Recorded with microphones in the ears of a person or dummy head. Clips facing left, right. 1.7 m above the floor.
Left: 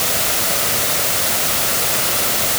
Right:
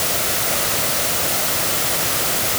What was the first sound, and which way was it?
Only background noise.